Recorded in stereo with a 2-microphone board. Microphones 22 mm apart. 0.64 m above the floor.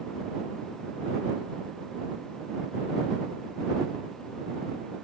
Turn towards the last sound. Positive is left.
No sound to turn to.